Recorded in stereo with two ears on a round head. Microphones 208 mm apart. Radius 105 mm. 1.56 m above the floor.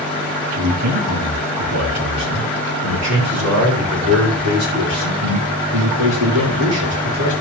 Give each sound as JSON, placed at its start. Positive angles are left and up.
{"t": 0.6, "sound": "a man speaking", "side_deg": -80, "distance_m": 3.0}